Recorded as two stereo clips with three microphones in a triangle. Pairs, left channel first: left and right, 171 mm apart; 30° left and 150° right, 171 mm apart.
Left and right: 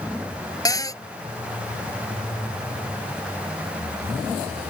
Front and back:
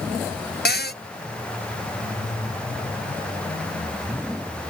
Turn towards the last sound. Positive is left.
turn(degrees=20)